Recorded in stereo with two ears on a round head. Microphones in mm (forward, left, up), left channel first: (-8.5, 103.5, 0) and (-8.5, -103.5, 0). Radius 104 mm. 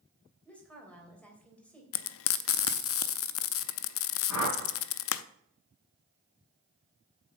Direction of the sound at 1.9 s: 65° left (ahead or behind).